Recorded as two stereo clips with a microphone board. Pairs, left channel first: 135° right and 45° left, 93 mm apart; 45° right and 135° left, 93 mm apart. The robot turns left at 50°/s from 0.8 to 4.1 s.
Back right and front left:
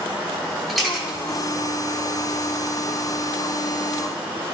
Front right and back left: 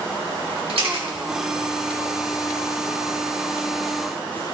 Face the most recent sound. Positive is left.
turn(degrees=-30)